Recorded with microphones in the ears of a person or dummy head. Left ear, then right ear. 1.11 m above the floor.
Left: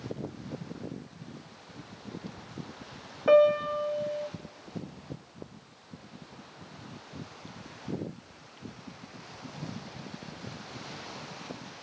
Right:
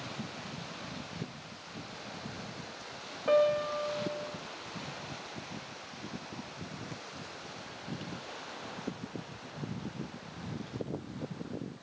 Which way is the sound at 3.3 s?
20° left (ahead or behind).